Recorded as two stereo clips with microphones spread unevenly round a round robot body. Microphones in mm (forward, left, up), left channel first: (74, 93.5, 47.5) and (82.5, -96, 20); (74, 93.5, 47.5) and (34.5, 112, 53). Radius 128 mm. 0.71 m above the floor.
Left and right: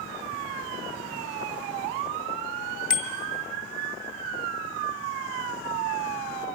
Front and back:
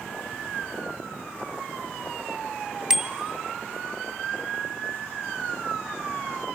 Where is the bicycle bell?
85° left, 2.5 m.